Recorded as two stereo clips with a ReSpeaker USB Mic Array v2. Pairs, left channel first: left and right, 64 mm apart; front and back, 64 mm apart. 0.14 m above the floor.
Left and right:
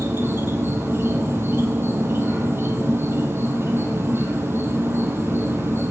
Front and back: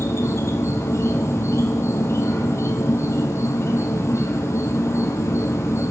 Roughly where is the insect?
Ahead right.